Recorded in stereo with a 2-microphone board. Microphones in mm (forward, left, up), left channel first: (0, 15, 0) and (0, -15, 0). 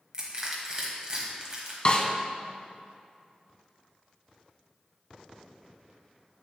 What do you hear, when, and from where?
0.1 s crushing: 30° right (ahead or behind), 1.4 m
1.9 s a snare drum: 35° left (ahead or behind), 0.6 m